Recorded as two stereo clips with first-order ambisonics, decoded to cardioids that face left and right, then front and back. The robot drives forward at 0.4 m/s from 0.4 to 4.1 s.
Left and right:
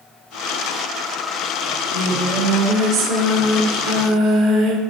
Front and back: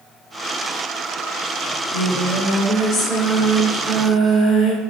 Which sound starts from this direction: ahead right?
Singing, at 1.6 s.